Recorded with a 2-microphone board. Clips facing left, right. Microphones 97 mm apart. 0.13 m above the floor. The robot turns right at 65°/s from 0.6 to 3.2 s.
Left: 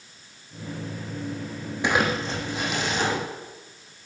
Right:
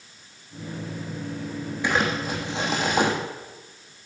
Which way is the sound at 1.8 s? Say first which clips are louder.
Left 1 dB; 160° left.